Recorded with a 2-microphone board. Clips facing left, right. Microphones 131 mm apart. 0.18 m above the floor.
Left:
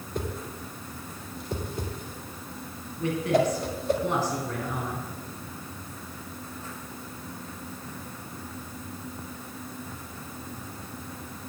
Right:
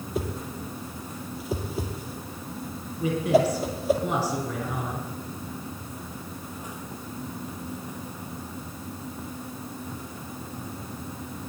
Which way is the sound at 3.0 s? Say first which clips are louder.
Right 2 dB; centre (ahead or behind).